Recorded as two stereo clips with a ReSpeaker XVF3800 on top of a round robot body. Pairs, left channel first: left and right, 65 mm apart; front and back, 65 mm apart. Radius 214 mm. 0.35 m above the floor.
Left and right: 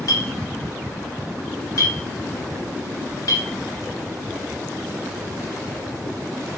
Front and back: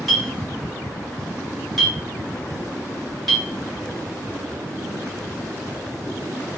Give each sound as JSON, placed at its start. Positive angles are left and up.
{"t": 0.1, "sound": "a clink", "azimuth_deg": 85, "distance_m": 1.4}